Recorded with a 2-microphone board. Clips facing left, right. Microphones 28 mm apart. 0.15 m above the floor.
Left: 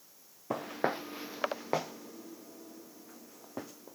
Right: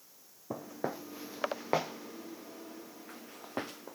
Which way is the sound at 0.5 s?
70° left (ahead or behind).